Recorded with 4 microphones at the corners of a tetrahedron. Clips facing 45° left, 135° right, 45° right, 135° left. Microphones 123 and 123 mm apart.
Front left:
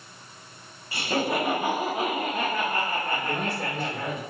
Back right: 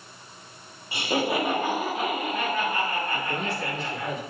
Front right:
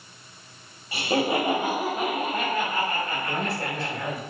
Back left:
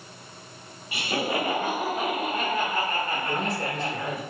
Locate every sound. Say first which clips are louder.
0.9 s laughter: back right 1 dB, front right 4 dB; 75° right, 0.9 m; by 4.1 s 75° left, 1.9 m
3.1 s a man speaking: front left 1 dB, back left 1 dB; 70° left, 1.6 m